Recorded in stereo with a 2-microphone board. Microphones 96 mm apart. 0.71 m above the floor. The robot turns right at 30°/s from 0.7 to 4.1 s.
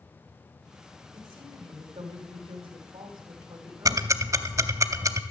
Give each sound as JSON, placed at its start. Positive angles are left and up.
{"t": 1.1, "sound": "a woman speaking", "azimuth_deg": -120, "distance_m": 2.5}
{"t": 3.9, "sound": "ticking", "side_deg": -40, "distance_m": 0.7}